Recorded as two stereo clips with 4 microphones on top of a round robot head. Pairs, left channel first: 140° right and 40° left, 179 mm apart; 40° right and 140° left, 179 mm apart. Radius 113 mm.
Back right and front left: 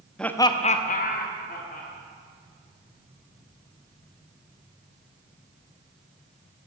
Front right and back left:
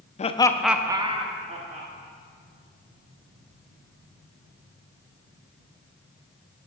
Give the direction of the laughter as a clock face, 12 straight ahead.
2 o'clock.